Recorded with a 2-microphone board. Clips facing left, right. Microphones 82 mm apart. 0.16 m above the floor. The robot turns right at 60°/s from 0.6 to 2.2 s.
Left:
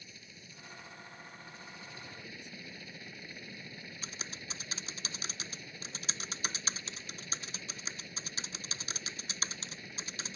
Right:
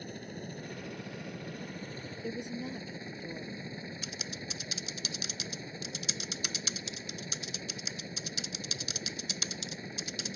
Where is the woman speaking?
60° right (ahead or behind).